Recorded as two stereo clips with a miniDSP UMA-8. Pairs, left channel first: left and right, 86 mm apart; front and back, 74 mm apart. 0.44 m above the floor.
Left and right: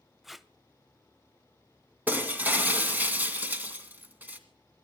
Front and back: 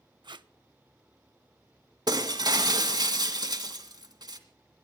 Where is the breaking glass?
160° right, 1.9 m.